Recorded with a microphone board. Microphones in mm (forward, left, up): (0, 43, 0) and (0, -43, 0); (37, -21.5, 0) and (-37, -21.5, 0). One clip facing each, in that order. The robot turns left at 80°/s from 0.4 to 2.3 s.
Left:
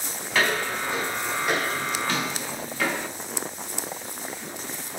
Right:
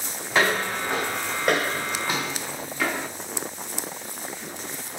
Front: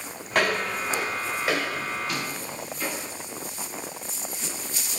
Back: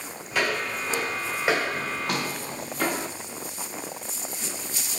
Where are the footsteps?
35° right, 2.5 m; by 3.1 s 175° right, 0.8 m.